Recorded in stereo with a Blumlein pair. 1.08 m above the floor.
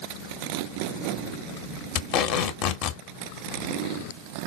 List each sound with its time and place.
1.9 s tape being pulled: 40° left, 1.0 m